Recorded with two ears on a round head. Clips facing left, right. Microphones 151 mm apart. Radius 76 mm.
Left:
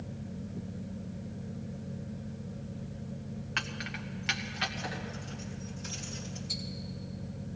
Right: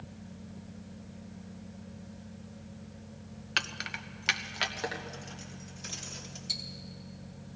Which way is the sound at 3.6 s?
40° right (ahead or behind).